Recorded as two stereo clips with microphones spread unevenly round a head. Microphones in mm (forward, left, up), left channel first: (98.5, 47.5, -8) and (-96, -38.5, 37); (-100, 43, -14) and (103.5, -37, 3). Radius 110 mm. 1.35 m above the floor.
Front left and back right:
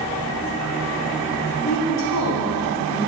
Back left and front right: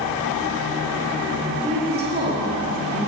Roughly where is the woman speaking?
Ahead.